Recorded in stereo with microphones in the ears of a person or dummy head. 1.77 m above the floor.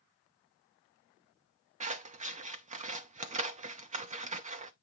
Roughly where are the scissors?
Right.